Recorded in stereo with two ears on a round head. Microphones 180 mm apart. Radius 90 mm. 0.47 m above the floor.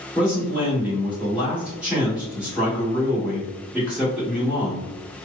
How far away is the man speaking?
About 1.5 m.